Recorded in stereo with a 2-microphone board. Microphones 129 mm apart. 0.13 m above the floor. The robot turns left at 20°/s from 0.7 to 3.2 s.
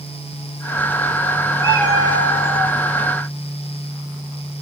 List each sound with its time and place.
1.6 s a cat meowing: 30° left (ahead or behind), 1.5 m; by 2.7 s 45° left (ahead or behind), 1.5 m